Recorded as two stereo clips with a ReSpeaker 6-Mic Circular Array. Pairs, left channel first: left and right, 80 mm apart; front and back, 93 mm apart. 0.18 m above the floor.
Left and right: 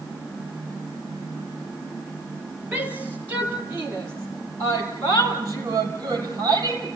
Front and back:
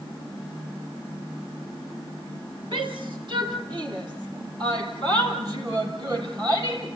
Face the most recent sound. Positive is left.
turn(degrees=-130)